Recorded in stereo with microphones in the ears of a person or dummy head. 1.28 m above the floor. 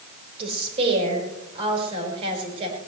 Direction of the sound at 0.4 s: 35° right (ahead or behind).